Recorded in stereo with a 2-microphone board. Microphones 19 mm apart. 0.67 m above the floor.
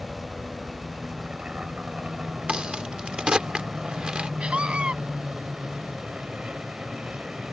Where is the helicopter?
55° right (ahead or behind).